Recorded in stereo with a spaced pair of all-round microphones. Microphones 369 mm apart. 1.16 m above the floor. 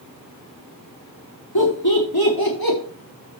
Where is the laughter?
80° left, 5 m; by 2.8 s 65° left (ahead or behind), 4 m.